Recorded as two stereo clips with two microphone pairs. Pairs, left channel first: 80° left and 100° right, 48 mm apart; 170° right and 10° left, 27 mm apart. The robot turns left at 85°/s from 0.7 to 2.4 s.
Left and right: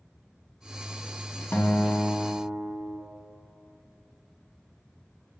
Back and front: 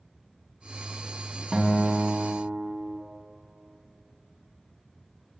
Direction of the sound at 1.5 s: 85° left.